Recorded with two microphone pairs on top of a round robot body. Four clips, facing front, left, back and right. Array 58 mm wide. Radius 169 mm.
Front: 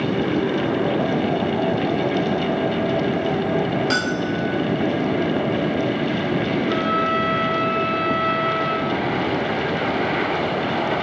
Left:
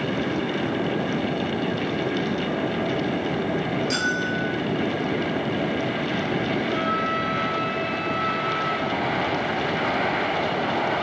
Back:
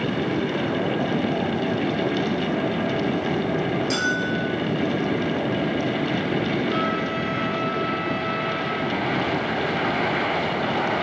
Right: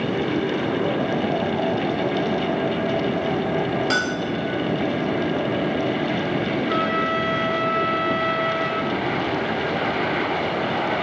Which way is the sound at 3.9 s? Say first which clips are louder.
Right 1 dB, front 1 dB; 50° right.